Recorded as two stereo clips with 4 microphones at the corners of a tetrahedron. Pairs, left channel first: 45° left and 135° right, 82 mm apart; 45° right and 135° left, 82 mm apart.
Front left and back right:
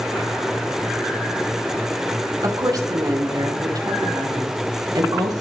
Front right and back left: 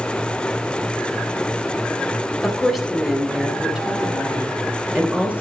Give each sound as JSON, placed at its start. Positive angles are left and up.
{"t": 2.4, "sound": "a woman speaking", "azimuth_deg": -130, "distance_m": 2.5}